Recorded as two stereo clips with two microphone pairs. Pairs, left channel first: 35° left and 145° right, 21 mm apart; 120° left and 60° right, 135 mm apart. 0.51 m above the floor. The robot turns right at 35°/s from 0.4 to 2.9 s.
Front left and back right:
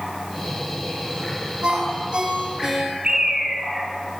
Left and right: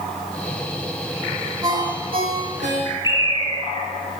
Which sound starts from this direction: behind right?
A ringtone, at 1.6 s.